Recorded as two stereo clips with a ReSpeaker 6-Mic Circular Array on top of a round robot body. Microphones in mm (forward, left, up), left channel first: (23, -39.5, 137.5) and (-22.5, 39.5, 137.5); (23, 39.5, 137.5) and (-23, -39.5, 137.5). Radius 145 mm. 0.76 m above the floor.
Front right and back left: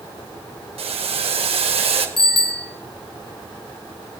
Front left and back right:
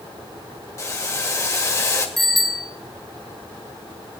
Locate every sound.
0.8 s boiling: 120° left, 1.9 m
2.2 s a bicycle bell: 25° right, 3 m